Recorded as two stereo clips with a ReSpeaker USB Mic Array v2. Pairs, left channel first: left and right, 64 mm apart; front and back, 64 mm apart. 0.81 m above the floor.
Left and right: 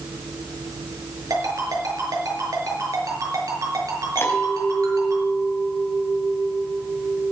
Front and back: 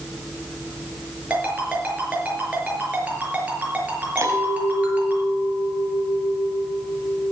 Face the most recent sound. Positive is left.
turn(degrees=140)